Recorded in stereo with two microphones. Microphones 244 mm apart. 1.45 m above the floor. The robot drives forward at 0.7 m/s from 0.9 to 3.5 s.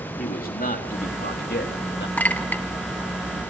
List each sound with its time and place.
0.2 s a man speaking: 35° left (ahead or behind), 3 m; by 2.1 s 50° left (ahead or behind), 2.5 m
2.2 s a clink: 5° left (ahead or behind), 1.4 m; by 2.6 s 10° left (ahead or behind), 1.1 m